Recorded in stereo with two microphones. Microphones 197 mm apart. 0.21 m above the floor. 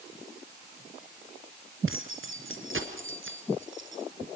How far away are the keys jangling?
About 3 m.